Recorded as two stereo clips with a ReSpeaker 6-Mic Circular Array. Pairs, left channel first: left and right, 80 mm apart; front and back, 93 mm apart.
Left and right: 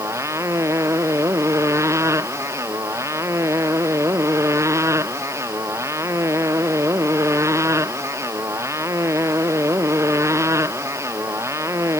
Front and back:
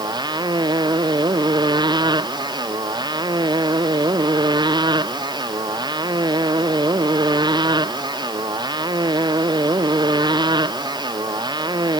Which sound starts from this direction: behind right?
A motorcycle, at 0.0 s.